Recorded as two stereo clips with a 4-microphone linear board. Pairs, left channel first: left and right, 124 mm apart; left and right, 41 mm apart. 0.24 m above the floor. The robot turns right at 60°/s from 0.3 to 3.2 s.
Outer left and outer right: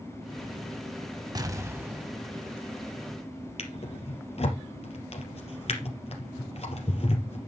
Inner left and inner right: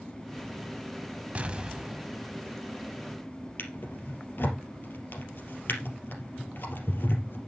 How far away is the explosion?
About 0.7 m.